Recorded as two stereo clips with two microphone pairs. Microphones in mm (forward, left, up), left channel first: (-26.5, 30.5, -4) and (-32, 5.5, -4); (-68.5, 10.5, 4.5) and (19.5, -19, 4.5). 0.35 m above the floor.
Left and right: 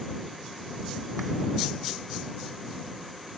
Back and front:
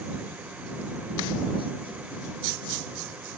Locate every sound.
Only background noise.